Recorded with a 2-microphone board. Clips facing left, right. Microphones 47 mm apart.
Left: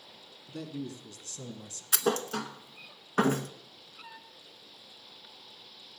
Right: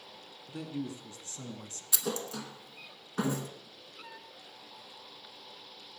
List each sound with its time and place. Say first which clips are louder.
0.5 s a man speaking: right 1 dB; 15° right (ahead or behind), 1.7 m; by 1.8 s 30° right (ahead or behind), 1.5 m
1.9 s a thud: left 7 dB; 50° left (ahead or behind), 0.8 m